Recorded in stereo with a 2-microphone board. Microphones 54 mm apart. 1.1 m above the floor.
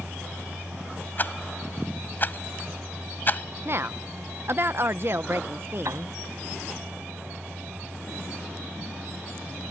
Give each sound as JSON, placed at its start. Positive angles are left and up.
{"t": 1.2, "sound": "a rattle", "side_deg": 35}
{"t": 3.6, "sound": "a woman speaking", "side_deg": -50}
{"t": 5.8, "sound": "a piano", "side_deg": -80}